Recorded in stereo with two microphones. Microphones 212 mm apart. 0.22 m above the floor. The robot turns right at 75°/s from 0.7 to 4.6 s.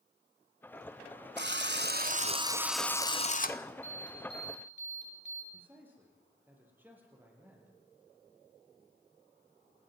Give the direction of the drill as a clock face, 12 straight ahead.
4 o'clock.